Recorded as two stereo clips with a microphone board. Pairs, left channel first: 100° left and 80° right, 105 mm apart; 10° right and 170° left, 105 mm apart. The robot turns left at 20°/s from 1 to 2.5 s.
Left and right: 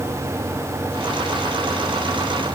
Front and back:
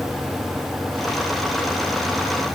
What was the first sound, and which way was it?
Only background noise.